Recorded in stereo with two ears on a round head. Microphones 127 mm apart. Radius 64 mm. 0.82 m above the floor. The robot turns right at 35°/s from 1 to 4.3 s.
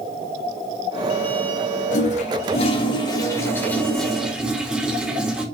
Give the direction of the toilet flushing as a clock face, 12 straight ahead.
9 o'clock.